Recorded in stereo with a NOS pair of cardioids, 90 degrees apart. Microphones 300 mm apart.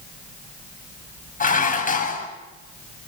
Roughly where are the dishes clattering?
Ahead left.